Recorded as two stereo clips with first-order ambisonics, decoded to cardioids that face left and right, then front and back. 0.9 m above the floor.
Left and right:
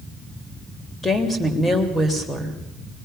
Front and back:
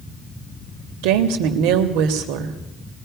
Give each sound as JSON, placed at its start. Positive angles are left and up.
{"t": 1.0, "sound": "a woman speaking", "azimuth_deg": 170, "distance_m": 3.0}